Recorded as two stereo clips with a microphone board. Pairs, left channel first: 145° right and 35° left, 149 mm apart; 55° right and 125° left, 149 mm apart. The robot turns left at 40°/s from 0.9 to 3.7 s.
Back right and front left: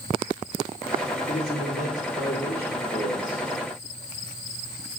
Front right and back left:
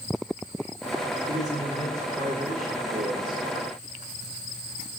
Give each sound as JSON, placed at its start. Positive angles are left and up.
{"t": 1.3, "sound": "a man speaking", "azimuth_deg": -90, "distance_m": 4.5}